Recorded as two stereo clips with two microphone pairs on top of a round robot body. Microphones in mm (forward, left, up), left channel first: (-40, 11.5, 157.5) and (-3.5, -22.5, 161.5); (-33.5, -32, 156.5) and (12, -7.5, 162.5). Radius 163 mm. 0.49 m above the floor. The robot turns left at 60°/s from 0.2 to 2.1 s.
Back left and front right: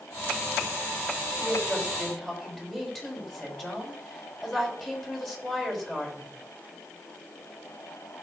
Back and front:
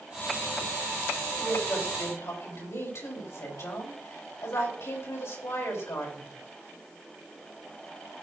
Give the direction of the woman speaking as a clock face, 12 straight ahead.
3 o'clock.